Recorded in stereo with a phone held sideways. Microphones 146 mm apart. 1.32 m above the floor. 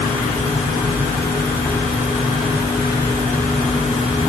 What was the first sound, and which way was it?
Only background noise.